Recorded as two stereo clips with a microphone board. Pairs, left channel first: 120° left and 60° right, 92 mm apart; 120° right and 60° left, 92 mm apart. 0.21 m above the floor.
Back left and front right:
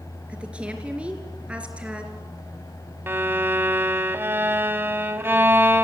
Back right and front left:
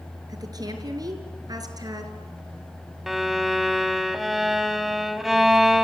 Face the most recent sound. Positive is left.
turn(degrees=-25)